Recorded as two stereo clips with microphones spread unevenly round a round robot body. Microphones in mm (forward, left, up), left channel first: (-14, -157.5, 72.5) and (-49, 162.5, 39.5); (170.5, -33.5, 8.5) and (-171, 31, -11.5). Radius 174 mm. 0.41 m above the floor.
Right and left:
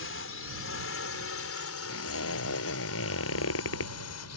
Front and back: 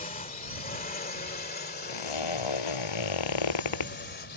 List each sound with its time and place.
0.0 s a drone: 65° right
1.9 s a zipper: 30° right